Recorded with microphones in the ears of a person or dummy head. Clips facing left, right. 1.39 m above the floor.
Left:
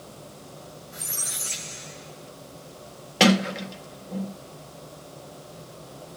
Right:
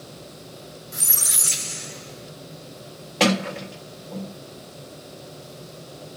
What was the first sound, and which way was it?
A squeak, 60° right (ahead or behind).